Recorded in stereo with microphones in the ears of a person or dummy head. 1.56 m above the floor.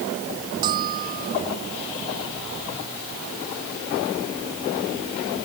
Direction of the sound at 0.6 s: 20° right (ahead or behind).